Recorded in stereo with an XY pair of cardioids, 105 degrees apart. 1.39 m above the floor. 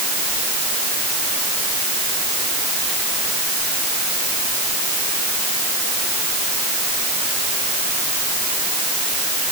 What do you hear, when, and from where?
Only background noise.